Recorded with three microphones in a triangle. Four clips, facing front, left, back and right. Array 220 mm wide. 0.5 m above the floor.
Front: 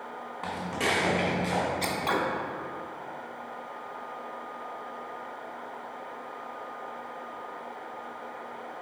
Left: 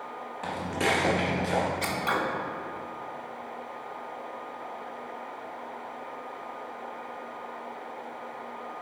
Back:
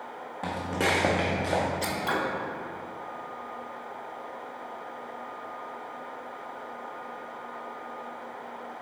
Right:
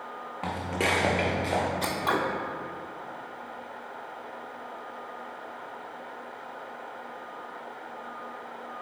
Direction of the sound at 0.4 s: 130° right.